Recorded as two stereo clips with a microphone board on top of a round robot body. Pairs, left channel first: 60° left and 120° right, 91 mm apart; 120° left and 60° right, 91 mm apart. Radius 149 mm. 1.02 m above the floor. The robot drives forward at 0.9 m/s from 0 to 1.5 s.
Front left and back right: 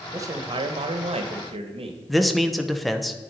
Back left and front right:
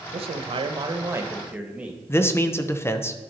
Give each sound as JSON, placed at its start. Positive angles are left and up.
{"t": 0.1, "sound": "a man speaking", "azimuth_deg": -60, "distance_m": 0.9}
{"t": 2.1, "sound": "a man speaking", "azimuth_deg": 150, "distance_m": 0.8}